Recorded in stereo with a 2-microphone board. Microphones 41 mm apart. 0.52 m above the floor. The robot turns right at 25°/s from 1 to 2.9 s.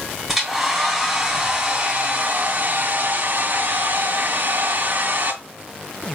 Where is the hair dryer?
175° right, 2.5 m; by 5.4 s 125° right, 2.5 m.